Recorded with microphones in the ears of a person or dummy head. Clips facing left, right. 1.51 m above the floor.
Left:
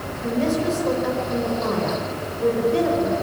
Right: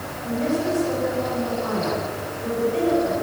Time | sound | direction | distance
0.2 | a woman speaking | 65° left (ahead or behind) | 8 m